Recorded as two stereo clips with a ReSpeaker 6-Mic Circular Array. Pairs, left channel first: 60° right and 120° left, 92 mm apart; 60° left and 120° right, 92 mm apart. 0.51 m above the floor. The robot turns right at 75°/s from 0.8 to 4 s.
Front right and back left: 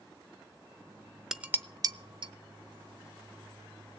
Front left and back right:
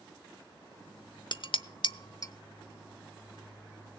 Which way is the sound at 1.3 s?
35° left.